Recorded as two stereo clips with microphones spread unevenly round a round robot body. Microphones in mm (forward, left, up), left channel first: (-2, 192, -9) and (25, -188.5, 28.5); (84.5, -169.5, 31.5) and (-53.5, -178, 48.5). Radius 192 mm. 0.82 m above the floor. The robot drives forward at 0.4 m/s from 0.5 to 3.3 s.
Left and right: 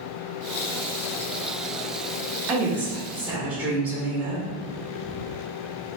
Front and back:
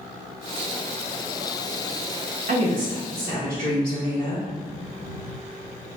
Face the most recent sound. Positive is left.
turn(degrees=-175)